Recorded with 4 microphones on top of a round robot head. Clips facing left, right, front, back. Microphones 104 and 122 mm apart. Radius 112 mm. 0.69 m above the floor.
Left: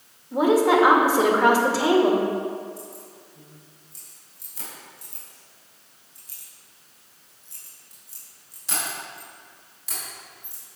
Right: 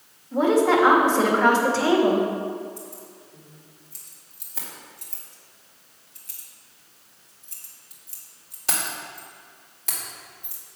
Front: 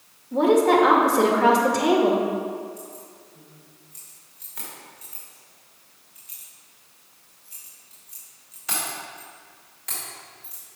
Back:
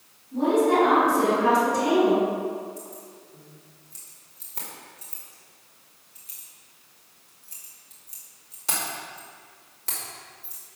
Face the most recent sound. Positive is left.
turn(degrees=-120)